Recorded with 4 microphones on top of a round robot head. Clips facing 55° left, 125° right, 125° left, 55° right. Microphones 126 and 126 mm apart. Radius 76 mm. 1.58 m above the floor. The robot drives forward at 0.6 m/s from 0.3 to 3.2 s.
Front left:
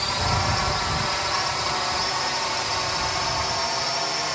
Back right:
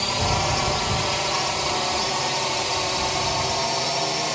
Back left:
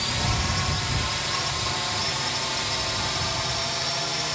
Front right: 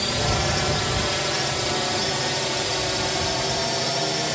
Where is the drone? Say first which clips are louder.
Back right 2 dB, front right 5 dB; 55° right; by 4.4 s 65° right.